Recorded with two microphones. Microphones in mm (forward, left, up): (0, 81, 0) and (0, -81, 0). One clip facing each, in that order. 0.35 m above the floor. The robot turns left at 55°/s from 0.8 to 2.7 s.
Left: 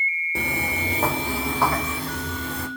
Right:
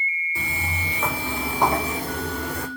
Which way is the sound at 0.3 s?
70° left (ahead or behind).